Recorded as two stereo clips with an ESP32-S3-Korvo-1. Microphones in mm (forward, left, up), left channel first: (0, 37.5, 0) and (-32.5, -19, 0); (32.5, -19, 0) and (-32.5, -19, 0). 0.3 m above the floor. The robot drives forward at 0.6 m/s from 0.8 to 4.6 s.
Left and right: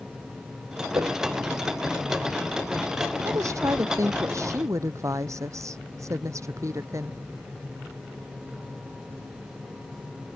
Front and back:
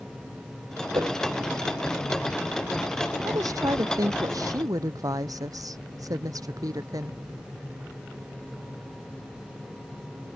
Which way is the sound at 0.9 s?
155° right.